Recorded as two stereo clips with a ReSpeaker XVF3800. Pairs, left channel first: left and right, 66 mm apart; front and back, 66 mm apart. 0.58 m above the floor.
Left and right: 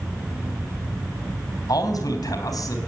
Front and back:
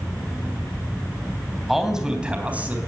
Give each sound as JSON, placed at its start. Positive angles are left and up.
{"t": 1.7, "sound": "a man speaking", "azimuth_deg": 95, "distance_m": 3.5}